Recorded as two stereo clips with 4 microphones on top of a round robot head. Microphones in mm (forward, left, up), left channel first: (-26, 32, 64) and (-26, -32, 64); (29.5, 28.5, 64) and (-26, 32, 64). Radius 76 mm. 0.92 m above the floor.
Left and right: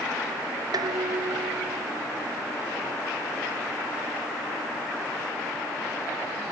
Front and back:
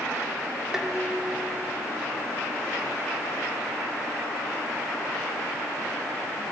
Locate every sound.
0.7 s dishes clattering: 100° right, 1.8 m